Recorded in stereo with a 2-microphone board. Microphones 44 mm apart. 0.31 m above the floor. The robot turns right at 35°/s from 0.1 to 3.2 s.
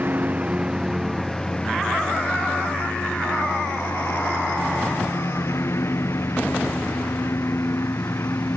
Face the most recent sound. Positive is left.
turn(degrees=70)